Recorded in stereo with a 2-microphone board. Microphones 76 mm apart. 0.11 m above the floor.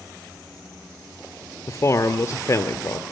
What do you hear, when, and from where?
1.7 s a man speaking: 45° left (ahead or behind), 1.7 m